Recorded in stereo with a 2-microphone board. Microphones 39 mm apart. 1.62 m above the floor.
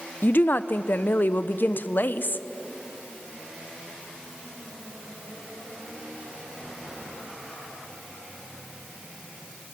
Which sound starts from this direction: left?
A woman speaking, at 0.2 s.